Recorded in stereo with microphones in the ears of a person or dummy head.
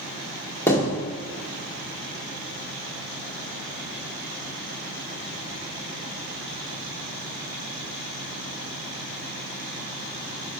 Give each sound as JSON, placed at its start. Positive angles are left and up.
{"t": 0.7, "sound": "a thud", "side_deg": 20, "distance_m": 1.9}